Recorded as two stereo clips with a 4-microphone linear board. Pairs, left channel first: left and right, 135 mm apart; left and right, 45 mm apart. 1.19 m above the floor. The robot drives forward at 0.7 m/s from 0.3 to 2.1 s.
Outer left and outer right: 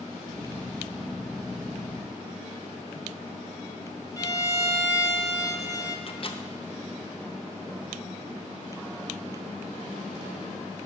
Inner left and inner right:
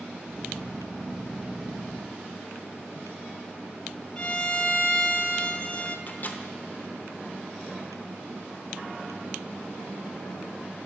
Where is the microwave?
40° left (ahead or behind), 0.7 m.